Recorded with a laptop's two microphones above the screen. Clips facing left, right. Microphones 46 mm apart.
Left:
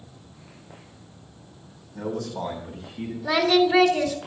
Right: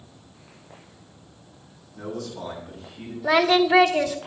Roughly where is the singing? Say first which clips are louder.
Right 1 dB; right.